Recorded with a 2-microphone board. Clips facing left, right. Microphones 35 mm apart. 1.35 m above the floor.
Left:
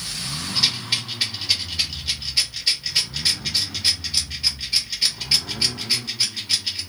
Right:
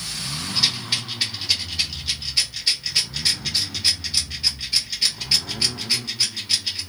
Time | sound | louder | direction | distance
0.6 | a rattle | even | 5° left (ahead or behind) | 1.9 m